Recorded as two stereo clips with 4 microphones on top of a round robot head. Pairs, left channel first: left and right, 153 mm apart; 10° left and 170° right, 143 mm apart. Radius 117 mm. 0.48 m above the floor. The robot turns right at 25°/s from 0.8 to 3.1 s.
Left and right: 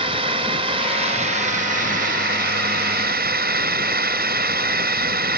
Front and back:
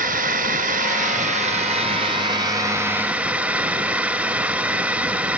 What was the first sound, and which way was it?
A drone, 150° right.